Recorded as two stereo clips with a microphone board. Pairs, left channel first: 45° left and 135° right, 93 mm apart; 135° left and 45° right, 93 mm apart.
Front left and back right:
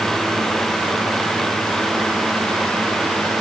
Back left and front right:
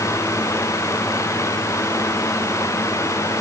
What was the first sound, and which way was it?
Only background noise.